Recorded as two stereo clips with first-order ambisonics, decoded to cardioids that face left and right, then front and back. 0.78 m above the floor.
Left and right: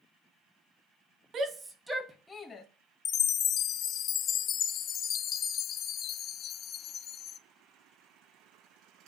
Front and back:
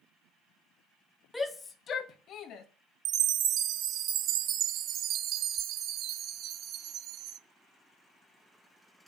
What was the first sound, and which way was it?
A shout, 75° right.